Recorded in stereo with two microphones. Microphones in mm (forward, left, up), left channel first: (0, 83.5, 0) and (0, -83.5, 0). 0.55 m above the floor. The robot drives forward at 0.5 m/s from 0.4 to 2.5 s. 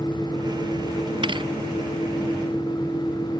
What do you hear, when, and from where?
1.2 s a thud: 30° right (ahead or behind)